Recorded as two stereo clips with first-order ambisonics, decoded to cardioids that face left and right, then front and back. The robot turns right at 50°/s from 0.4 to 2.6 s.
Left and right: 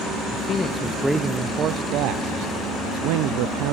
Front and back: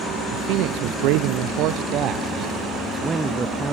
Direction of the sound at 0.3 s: 150° left.